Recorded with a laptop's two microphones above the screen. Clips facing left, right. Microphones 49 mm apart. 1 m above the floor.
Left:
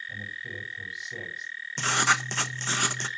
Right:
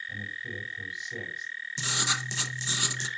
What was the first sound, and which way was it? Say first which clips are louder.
A man speaking: even; centre (ahead or behind).